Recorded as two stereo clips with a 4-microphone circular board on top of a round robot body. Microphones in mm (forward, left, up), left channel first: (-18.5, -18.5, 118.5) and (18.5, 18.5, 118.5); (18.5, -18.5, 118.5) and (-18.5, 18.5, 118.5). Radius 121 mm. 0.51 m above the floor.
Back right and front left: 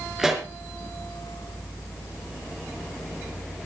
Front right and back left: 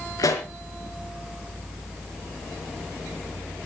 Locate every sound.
0.2 s a pop: 35° right, 3.5 m